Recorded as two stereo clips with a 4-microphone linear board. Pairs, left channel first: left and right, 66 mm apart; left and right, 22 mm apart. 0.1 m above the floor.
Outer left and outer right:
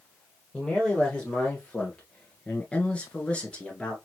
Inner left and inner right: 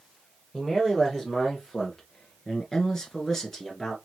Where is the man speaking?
15° left (ahead or behind), 2.5 m.